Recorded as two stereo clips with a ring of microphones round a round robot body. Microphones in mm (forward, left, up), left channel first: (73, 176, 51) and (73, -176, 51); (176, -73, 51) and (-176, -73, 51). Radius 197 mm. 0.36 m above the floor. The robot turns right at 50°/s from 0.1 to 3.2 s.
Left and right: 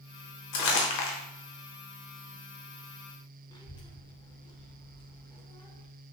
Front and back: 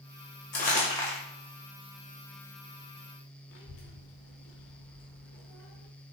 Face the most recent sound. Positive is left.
turn(degrees=20)